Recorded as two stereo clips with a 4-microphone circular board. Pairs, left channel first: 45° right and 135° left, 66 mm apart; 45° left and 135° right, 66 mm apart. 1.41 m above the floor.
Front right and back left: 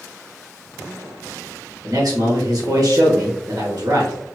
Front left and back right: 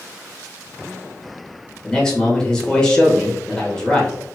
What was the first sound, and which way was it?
A man speaking, 120° left.